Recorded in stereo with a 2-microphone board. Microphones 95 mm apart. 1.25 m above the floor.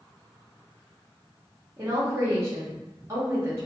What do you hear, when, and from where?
1.8 s a woman speaking: 35° right (ahead or behind), 1.0 m